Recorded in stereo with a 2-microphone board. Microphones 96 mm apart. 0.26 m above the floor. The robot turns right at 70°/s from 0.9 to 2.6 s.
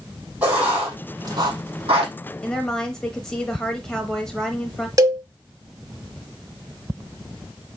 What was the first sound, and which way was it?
Writing, 20° right (ahead or behind).